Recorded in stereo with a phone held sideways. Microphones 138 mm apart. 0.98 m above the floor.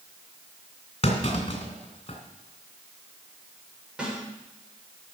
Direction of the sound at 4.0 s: 5° right (ahead or behind).